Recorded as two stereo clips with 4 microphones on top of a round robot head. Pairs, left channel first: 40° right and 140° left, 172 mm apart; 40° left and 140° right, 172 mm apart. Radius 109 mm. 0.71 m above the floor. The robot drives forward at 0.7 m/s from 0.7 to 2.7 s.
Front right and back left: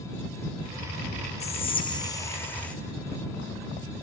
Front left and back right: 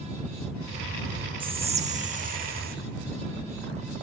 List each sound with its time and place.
1.4 s whispering: 85° right, 1.5 m; by 2.8 s 120° right, 1.7 m